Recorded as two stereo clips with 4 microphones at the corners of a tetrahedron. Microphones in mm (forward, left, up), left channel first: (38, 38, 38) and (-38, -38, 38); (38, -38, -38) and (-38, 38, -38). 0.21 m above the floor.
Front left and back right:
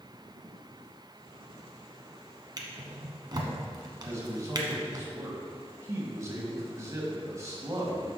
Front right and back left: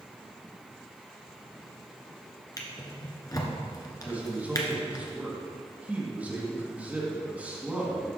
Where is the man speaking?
160° right, 1.8 m.